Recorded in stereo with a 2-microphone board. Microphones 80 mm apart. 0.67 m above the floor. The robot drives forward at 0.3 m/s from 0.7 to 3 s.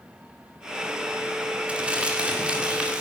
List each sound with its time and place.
1.7 s crumpling: 15° right (ahead or behind), 2.0 m